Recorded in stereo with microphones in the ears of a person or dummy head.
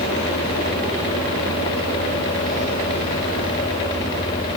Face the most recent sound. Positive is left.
No sound to turn to.